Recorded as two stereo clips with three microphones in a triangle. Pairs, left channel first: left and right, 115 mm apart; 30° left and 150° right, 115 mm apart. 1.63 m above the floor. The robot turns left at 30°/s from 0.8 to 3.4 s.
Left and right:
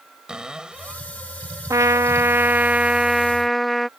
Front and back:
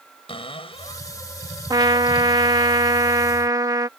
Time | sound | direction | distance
0.3 | a cupboard door | 5° right | ?
1.7 | a trumpet | 130° right | ?